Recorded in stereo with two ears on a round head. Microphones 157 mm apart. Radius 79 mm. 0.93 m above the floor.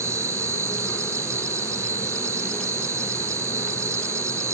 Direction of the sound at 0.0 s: 20° right (ahead or behind).